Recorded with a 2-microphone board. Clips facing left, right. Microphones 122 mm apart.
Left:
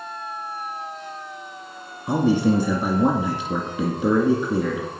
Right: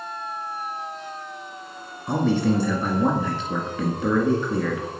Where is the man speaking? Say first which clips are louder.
Left 2 dB; 10° left (ahead or behind), 2.5 m.